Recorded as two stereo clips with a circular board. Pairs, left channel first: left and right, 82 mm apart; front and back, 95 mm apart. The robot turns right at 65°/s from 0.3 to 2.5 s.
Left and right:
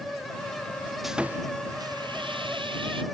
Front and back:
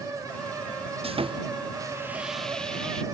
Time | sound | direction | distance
1.0 | sawing | 175° right | ?